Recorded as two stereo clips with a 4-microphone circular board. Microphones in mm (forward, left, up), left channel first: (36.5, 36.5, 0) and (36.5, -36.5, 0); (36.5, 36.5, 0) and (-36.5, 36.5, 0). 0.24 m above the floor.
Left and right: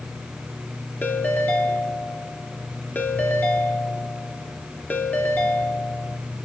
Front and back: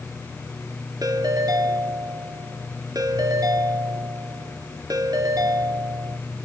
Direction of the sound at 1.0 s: 150° left.